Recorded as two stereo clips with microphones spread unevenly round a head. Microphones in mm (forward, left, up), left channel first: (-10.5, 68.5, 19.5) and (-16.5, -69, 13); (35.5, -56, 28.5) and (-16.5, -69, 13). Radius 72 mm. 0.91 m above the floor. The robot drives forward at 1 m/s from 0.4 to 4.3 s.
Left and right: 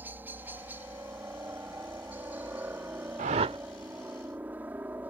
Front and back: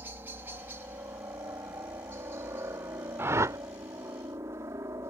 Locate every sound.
0.0 s a helicopter: 165° right; by 5.1 s 170° right
3.2 s a whoosh: 115° right; by 3.6 s 140° right